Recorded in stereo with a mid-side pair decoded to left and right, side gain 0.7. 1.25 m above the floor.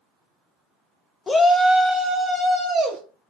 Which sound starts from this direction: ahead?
A shout, at 1.3 s.